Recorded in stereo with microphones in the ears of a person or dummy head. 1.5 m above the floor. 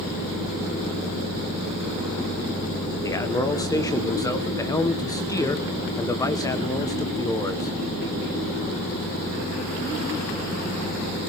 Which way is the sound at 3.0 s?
20° left (ahead or behind).